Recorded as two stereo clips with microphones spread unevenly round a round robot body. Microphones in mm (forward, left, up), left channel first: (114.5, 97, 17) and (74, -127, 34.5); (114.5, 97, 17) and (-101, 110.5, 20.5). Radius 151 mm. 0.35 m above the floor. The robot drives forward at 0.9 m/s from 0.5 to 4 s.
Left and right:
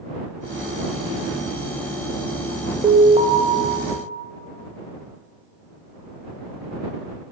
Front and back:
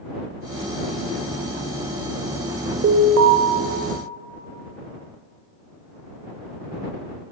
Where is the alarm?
170° right, 0.6 m; by 3.4 s 175° right, 1.0 m.